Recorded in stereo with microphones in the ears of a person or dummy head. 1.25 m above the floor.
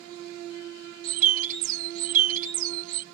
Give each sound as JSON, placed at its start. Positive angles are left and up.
{"t": 1.0, "sound": "a bird", "side_deg": -45}